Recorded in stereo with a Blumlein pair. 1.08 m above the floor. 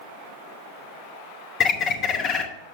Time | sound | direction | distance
1.6 | a bird | 30° left | 1.0 m